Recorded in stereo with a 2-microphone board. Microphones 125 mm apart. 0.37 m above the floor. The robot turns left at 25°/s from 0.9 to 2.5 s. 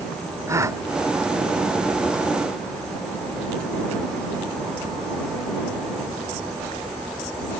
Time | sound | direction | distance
0.5 | a gasp | 25° right (ahead or behind) | ?